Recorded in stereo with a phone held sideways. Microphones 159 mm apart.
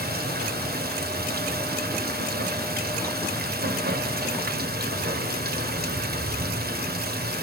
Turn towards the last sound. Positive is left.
turn(degrees=-80)